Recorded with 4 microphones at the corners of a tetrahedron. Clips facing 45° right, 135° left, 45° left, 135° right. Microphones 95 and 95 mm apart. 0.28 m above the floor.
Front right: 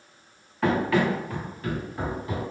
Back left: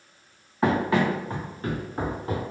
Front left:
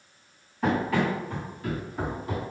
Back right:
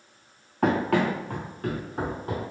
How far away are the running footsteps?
About 1.3 m.